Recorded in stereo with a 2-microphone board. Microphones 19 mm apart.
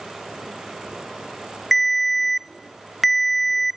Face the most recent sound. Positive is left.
turn(degrees=0)  # may be behind; listen again after turning